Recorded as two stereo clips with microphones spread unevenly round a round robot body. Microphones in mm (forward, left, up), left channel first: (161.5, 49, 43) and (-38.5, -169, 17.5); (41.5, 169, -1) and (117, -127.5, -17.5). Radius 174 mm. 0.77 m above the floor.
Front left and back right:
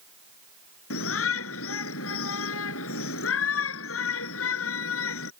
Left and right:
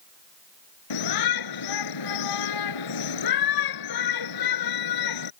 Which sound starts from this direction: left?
A shout, at 0.9 s.